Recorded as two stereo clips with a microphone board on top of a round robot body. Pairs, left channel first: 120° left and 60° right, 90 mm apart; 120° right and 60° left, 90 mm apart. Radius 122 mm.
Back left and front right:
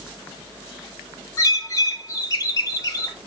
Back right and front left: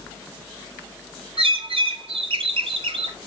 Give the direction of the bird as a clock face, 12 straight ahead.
10 o'clock.